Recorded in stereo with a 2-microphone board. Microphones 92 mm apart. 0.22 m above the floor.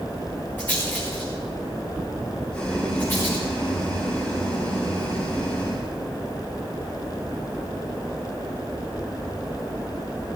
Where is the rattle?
20° left (ahead or behind), 6 m.